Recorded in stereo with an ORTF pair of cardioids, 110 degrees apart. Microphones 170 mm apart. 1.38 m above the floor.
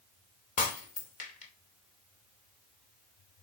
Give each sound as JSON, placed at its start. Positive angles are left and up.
{"t": 0.6, "sound": "breaking glass", "azimuth_deg": 50, "distance_m": 2.5}